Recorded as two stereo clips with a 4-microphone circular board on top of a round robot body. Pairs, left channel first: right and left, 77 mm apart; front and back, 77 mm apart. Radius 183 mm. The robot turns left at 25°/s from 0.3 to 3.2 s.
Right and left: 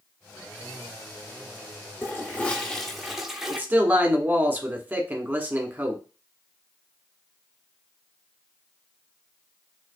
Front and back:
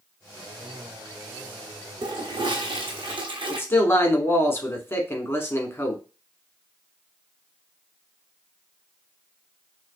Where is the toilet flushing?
155° right, 0.9 m; by 3.6 s 175° left, 0.9 m.